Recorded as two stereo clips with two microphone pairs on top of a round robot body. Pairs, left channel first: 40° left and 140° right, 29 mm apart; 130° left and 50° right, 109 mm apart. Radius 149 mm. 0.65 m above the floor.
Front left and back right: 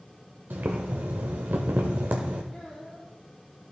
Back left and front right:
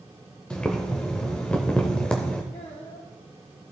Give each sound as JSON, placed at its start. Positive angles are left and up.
{"t": 0.5, "sound": "boiling", "azimuth_deg": -150, "distance_m": 0.5}
{"t": 2.5, "sound": "a child speaking", "azimuth_deg": 110, "distance_m": 1.6}